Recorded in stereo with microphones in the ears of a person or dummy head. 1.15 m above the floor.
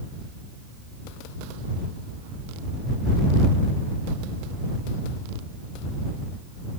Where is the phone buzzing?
I don't hear a phone buzzing.